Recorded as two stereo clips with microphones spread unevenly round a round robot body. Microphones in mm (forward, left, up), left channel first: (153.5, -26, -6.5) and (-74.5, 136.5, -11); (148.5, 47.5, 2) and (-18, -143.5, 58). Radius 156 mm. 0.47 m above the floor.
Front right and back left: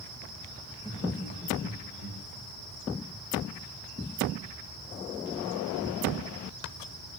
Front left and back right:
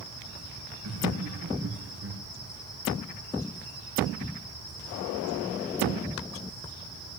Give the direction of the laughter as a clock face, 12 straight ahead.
4 o'clock.